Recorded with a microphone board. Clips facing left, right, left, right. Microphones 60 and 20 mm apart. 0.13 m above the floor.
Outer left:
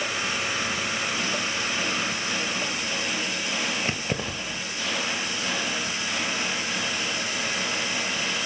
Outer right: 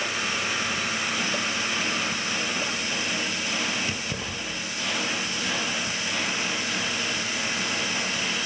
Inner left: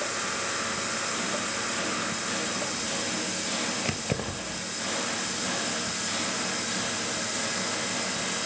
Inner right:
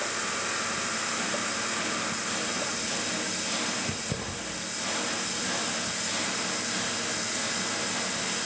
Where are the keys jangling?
45° left (ahead or behind), 1.8 m.